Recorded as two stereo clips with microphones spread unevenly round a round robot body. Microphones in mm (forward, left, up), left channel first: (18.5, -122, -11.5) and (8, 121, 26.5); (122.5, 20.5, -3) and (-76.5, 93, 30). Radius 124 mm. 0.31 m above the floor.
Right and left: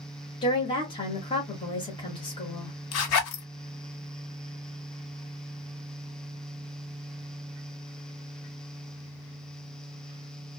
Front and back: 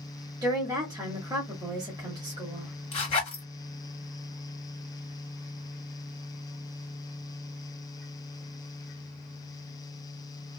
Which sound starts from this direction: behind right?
A woman speaking, at 0.4 s.